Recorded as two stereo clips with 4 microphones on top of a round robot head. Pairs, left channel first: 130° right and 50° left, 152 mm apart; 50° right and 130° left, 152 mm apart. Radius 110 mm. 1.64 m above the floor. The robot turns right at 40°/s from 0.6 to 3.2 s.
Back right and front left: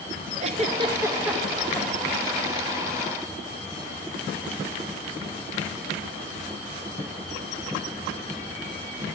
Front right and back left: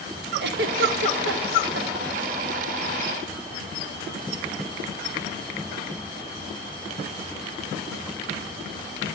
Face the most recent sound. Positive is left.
turn(degrees=-150)